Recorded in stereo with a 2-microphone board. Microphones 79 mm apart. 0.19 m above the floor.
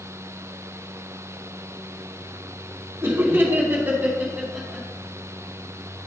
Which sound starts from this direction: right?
Laughter, at 3.0 s.